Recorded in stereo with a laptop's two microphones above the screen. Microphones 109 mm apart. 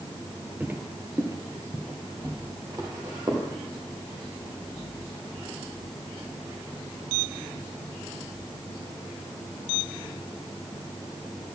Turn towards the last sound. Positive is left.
turn(degrees=-35)  # may be behind; listen again after turning